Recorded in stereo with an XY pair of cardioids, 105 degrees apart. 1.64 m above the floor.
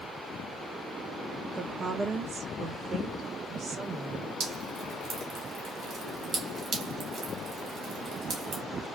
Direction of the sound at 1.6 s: 35° right.